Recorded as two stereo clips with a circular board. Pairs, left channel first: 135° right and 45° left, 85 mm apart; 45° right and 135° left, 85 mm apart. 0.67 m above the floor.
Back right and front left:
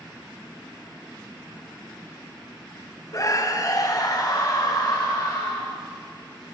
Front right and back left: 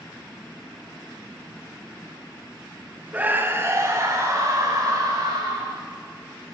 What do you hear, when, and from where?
3.1 s a scream: 160° right, 1.4 m; by 5.7 s straight behind, 5 m